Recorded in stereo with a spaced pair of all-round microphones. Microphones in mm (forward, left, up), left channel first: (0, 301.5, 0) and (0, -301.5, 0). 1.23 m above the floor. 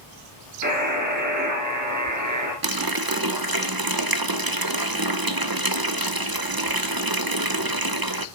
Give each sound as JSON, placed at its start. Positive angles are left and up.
{"t": 0.6, "sound": "a buzzer", "side_deg": -30, "distance_m": 3.5}
{"t": 2.6, "sound": "a running tap", "side_deg": -40, "distance_m": 0.6}